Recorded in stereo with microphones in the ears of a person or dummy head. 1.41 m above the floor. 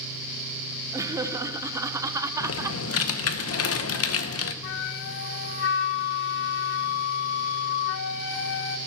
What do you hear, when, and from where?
0.9 s laughter: 15° right (ahead or behind), 0.6 m
2.4 s typing on a keyboard: 70° left (ahead or behind), 0.9 m
4.6 s a flute: 65° left (ahead or behind), 0.9 m